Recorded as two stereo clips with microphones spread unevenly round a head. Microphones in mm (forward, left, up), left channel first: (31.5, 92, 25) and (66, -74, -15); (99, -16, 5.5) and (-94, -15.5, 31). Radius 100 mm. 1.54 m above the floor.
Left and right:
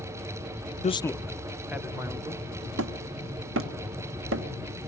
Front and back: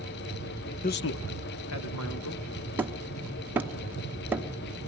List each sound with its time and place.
0.8 s a man speaking: 45° left, 0.5 m; by 2.5 s 5° right, 2.5 m
2.8 s hammering: 105° right, 1.1 m